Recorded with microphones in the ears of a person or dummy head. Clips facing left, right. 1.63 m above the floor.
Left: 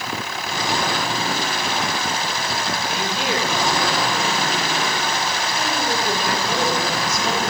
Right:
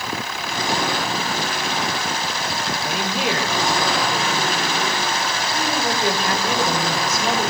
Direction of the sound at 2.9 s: 50° right (ahead or behind).